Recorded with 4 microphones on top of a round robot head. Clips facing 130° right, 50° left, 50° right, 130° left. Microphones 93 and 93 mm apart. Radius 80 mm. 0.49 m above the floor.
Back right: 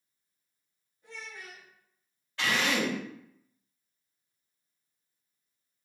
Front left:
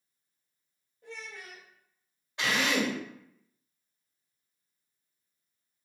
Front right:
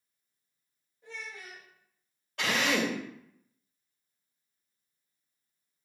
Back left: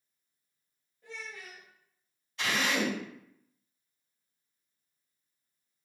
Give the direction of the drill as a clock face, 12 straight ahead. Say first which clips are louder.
Even, front right 2 dB; 1 o'clock.